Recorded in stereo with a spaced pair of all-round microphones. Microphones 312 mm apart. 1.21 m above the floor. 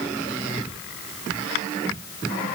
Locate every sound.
Only background noise.